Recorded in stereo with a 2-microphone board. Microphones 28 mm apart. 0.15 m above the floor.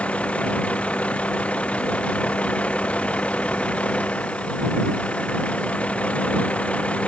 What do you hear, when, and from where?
0.0 s a vehicle: 50° left (ahead or behind)